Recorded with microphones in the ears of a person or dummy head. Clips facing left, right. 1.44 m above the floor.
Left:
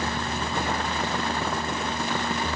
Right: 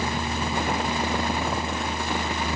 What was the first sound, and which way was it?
Only background noise.